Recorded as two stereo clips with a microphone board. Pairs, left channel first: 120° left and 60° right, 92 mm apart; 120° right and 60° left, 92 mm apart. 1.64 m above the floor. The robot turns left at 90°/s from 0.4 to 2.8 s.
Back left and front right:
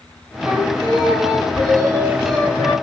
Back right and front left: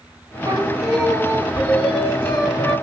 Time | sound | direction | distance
0.4 | singing | 15° left | 3 m